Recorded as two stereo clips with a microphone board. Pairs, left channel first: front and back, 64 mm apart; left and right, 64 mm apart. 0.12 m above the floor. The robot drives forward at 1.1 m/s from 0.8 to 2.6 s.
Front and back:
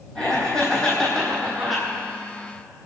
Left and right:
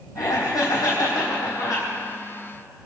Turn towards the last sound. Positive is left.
turn(degrees=105)